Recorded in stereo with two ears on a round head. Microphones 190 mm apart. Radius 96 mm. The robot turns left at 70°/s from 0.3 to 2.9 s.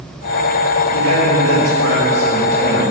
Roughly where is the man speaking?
Ahead right.